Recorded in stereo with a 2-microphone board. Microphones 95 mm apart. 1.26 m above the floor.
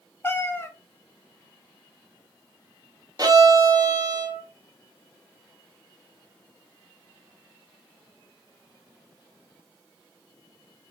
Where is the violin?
40° right (ahead or behind), 0.8 m.